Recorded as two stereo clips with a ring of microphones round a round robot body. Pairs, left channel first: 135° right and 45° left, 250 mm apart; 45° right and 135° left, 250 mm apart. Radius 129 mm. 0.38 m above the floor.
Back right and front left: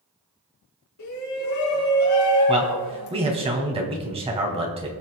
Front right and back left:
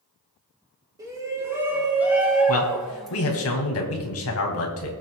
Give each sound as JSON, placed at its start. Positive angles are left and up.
{"t": 1.0, "sound": "a shout", "azimuth_deg": -150, "distance_m": 4.0}
{"t": 2.5, "sound": "a man speaking", "azimuth_deg": -20, "distance_m": 2.5}